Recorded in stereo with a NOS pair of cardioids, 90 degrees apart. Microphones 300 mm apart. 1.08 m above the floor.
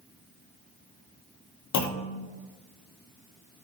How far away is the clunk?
About 0.8 m.